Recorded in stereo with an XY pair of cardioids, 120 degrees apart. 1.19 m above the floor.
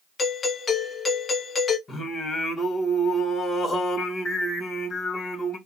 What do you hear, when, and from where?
0.2 s a doorbell: 35° left, 1.2 m
1.9 s singing: 45° left, 2.5 m